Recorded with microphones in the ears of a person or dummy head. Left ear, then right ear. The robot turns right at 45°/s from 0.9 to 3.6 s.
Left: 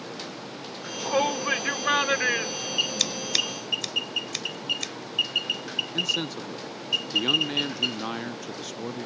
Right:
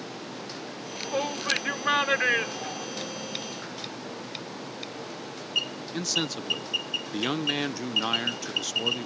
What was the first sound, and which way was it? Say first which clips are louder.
A shout: left 4 dB; 140° left.